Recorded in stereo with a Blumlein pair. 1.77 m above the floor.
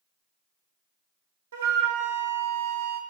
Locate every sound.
1.5 s a flute: 60° right, 0.6 m